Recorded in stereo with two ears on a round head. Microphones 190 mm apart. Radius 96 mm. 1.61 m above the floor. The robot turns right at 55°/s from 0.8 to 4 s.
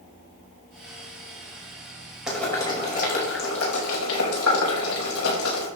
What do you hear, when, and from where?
2.3 s boiling: centre (ahead or behind), 5.5 m; by 5.7 s 80° left, 5.5 m